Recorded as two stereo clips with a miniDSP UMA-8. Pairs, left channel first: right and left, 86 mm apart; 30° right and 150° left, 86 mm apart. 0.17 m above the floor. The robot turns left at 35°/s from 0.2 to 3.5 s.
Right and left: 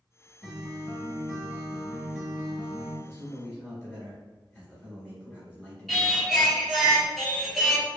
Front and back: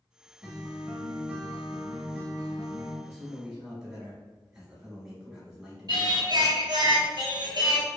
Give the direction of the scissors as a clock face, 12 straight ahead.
No scissors in this recording.